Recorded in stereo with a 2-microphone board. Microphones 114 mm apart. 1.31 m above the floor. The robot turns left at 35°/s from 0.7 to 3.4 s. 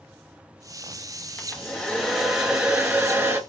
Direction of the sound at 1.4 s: 25° left.